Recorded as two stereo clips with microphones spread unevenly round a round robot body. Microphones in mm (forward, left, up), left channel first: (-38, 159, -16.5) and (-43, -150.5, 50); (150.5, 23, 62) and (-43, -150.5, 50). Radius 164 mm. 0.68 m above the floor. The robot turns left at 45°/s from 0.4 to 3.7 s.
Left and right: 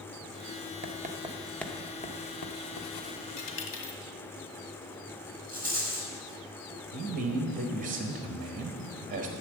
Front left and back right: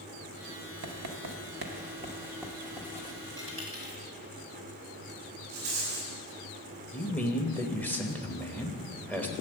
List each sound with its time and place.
0.8 s writing: 150° right, 1.1 m; by 3.2 s 100° left, 1.1 m
3.4 s a dropped coin: 120° left, 1.8 m; by 4.0 s 105° left, 1.8 m
5.5 s a rattle: 170° left, 4 m
6.9 s a man speaking: 40° right, 1.1 m